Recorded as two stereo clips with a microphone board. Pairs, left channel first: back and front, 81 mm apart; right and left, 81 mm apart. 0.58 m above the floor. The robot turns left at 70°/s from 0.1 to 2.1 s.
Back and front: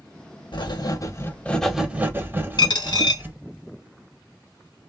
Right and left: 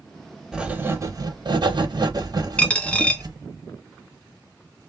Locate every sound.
0.5 s writing: 170° left, 0.6 m; by 3.4 s 60° left, 0.6 m
2.6 s a dropped coin: 165° right, 0.9 m